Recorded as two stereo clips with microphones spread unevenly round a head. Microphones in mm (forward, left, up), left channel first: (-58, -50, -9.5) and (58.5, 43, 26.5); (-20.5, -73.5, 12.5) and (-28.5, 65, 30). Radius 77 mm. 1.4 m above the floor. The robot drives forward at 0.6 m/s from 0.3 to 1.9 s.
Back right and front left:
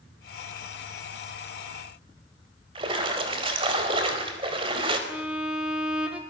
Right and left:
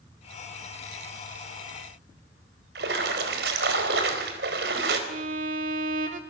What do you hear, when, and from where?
2.8 s a splash: 95° left, 4 m
5.1 s a violin: 120° left, 3 m